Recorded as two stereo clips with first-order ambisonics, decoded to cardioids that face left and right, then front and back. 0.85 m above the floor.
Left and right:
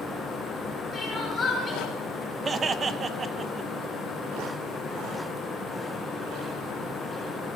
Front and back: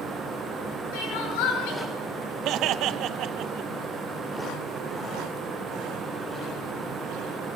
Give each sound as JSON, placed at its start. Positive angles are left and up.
{"t": 0.9, "sound": "crying", "azimuth_deg": 10, "distance_m": 6.0}
{"t": 2.5, "sound": "laughter", "azimuth_deg": -155, "distance_m": 0.9}